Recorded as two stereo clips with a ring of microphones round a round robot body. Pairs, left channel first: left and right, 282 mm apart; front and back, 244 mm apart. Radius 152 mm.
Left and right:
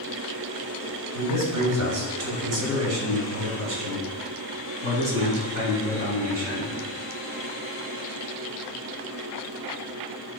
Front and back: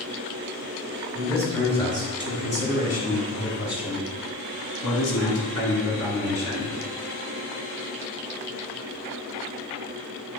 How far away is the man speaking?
About 2 m.